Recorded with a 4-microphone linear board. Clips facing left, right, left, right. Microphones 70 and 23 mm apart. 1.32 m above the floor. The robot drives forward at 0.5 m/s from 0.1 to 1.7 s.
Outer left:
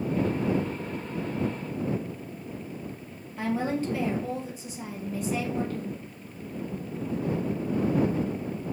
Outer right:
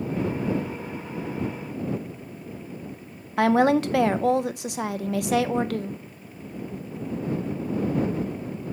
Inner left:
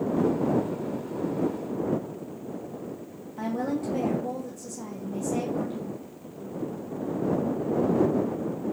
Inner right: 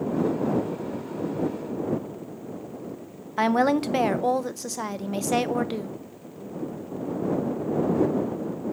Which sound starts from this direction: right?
A woman speaking, at 3.4 s.